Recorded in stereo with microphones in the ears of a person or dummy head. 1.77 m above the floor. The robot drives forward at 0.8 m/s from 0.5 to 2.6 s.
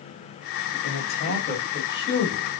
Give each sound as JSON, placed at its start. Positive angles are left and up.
{"t": 0.8, "sound": "a man speaking", "side_deg": 60, "distance_m": 1.2}